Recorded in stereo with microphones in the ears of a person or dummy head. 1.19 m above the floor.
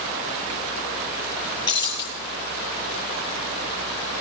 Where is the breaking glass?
25° left (ahead or behind), 9 m.